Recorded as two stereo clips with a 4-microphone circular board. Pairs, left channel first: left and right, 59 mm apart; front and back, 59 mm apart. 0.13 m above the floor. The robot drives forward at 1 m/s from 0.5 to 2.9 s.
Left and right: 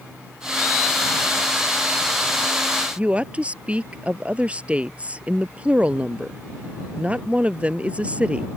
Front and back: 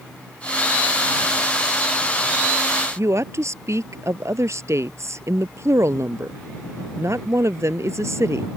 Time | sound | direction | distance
3.0 | a woman speaking | 155° right | ?